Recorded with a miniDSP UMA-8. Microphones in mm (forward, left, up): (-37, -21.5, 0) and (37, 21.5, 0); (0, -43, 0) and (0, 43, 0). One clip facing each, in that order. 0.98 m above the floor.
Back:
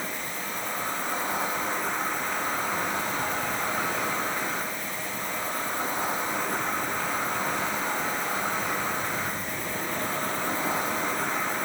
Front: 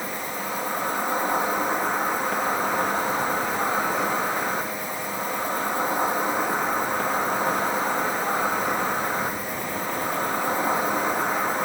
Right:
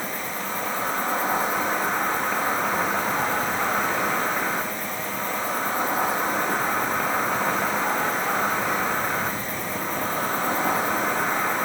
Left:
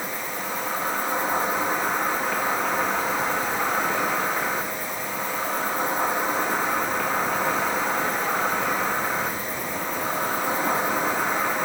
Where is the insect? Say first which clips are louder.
Front 4 dB, even; 5° right, 2.5 m.